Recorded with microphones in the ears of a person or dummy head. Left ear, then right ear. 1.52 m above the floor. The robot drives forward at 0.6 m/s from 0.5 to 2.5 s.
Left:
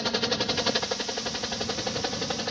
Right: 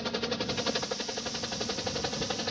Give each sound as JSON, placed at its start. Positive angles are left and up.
{"t": 0.0, "sound": "a helicopter", "side_deg": 20}